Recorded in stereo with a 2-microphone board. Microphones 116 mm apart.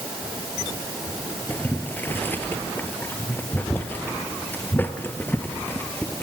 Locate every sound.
1.5 s boiling: 15° left (ahead or behind), 2.0 m